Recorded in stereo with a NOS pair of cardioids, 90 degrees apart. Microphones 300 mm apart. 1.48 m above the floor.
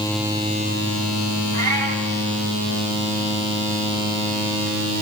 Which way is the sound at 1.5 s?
15° left.